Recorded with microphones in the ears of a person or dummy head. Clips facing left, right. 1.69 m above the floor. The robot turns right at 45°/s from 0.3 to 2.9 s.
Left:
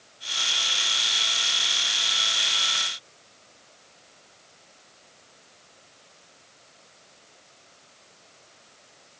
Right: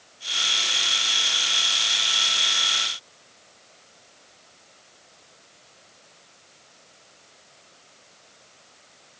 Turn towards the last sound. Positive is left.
No sound to turn to.